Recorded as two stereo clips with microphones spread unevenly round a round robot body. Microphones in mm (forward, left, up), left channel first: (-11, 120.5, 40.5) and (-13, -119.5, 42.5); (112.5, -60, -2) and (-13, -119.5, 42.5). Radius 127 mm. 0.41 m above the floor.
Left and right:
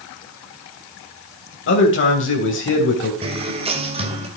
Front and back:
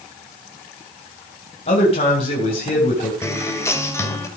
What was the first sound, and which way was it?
A man speaking, 60° left.